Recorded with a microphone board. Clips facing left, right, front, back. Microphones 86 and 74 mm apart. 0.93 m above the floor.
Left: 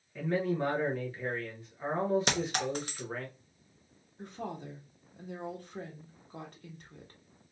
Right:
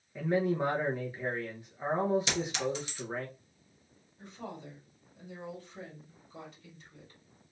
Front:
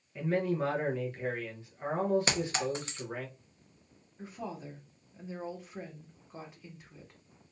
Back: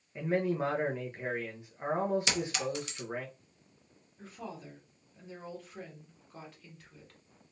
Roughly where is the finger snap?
No finger snap in this recording.